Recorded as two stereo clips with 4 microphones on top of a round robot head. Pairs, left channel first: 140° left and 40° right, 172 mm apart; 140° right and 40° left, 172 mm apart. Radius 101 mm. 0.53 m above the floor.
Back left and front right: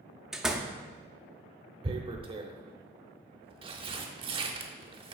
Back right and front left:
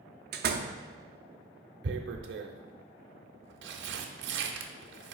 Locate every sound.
0.3 s a door slam: 45° left, 0.6 m
1.8 s tearing paper: 20° left, 0.6 m